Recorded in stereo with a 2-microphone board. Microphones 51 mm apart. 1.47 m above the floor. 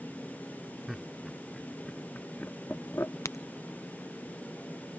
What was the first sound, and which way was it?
Laughter, 5° right (ahead or behind).